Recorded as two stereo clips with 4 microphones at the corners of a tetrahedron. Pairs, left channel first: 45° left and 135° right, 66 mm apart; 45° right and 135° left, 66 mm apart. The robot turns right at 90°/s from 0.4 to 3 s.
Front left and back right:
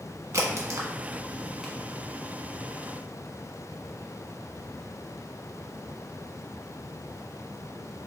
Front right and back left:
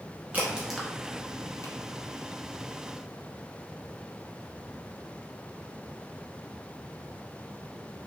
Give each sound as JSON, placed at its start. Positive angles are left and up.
{"t": 0.3, "sound": "a crack", "azimuth_deg": -165, "distance_m": 1.1}